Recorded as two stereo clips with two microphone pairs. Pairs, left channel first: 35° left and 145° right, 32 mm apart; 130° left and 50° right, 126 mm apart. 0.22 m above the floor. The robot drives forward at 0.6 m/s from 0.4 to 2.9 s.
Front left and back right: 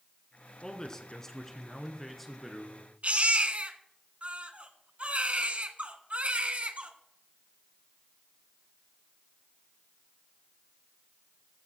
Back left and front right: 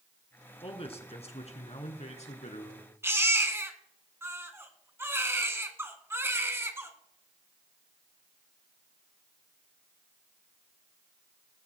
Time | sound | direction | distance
0.6 | a man speaking | 100° left | 2.5 m
3.0 | a baby crying | 115° right | 1.6 m